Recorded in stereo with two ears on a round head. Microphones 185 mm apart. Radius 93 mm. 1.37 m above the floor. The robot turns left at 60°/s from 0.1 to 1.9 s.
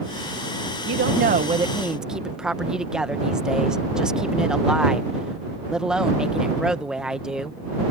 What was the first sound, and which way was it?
A woman speaking, 115° right.